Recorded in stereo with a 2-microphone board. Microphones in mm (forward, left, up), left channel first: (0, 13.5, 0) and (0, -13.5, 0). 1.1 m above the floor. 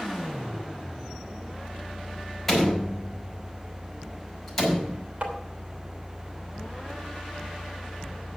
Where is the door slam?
Centre (ahead or behind), 6.5 m.